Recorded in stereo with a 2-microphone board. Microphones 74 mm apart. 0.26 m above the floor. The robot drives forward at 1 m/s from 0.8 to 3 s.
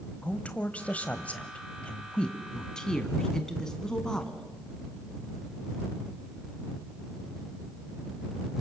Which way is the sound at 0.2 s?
20° left (ahead or behind).